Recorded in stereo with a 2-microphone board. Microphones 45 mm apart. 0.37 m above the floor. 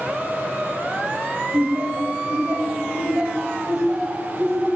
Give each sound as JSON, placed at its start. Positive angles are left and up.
{"t": 1.5, "sound": "laughter", "side_deg": -45, "distance_m": 2.0}